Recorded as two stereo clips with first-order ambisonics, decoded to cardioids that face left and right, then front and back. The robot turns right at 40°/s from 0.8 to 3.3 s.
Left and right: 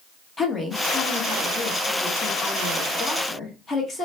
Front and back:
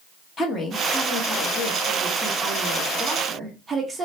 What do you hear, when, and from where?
0.4 s a woman speaking: 25° left, 0.9 m; by 4.0 s 125° left, 0.9 m